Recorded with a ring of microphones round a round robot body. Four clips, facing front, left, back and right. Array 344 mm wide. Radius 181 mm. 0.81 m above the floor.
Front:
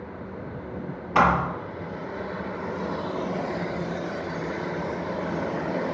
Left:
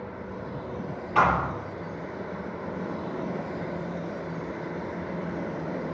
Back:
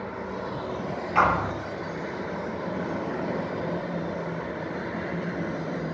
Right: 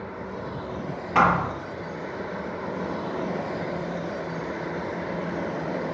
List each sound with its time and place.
1.1 s a thud: 75° right, 5.5 m